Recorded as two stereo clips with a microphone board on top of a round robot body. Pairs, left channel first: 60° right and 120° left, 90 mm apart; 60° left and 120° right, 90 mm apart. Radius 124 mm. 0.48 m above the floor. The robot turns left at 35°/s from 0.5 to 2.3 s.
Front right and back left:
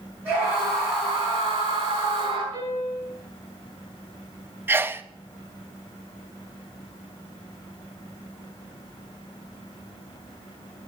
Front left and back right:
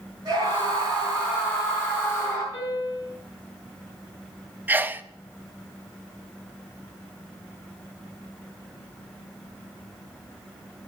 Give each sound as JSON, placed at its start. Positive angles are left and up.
{"t": 0.2, "sound": "a scream", "azimuth_deg": -165, "distance_m": 7.0}
{"t": 2.5, "sound": "a piano", "azimuth_deg": 125, "distance_m": 7.5}
{"t": 4.7, "sound": "a sneeze", "azimuth_deg": 175, "distance_m": 0.9}